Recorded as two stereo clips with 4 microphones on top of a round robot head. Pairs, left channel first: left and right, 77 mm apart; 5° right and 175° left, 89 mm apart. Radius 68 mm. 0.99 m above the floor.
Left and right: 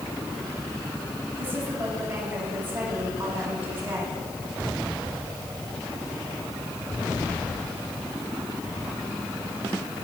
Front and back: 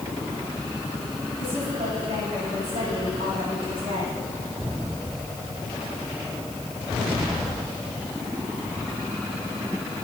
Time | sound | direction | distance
1.4 | a woman speaking | 150° right | 8.5 m